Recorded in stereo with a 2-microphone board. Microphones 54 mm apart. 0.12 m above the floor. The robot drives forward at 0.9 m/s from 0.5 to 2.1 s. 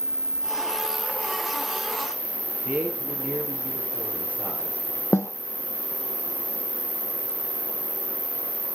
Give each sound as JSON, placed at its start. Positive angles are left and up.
{"t": 0.0, "sound": "an insect", "side_deg": -55, "distance_m": 1.1}
{"t": 2.6, "sound": "a man speaking", "side_deg": -35, "distance_m": 3.0}
{"t": 5.1, "sound": "a snare drum", "side_deg": 65, "distance_m": 0.7}